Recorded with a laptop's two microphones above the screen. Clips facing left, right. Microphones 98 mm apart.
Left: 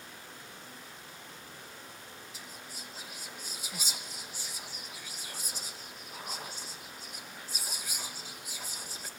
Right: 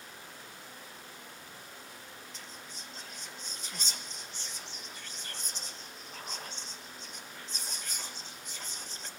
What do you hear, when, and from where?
2.3 s whispering: 10° left (ahead or behind), 1.2 m